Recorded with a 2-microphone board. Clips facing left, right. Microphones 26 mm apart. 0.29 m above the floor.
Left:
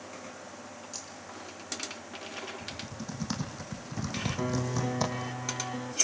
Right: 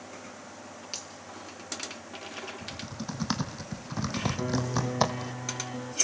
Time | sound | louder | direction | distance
0.9 | a finger snap | right 6 dB | 65° right (ahead or behind) | 4.5 m
2.6 | typing on a keyboard | right 2 dB | 30° right (ahead or behind) | 2.5 m
4.4 | a piano | left 1 dB | 10° left (ahead or behind) | 1.7 m